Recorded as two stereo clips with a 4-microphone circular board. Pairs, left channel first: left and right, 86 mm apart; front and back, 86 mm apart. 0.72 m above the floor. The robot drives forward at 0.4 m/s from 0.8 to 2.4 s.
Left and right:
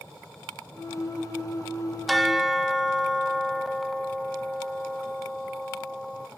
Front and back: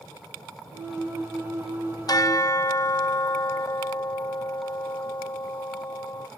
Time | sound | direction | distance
2.1 | a bell | straight ahead | 0.7 m